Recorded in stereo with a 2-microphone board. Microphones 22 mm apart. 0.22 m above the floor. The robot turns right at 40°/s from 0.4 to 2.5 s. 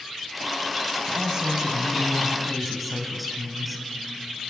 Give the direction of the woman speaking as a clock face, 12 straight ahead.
2 o'clock.